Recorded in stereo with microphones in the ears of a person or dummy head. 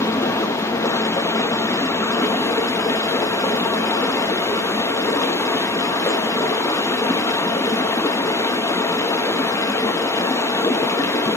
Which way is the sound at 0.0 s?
15° left (ahead or behind).